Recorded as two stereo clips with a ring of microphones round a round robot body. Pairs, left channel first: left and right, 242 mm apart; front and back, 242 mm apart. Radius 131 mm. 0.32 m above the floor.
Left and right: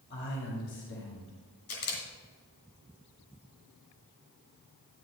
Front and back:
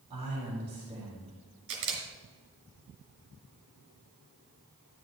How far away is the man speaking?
About 2.5 m.